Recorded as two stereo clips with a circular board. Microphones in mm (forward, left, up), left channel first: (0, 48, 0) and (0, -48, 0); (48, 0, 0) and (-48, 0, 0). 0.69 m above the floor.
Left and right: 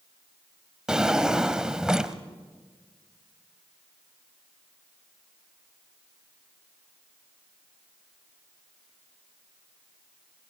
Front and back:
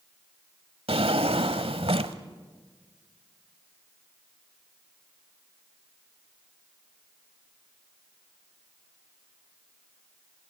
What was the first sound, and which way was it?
A drawer, 175° right.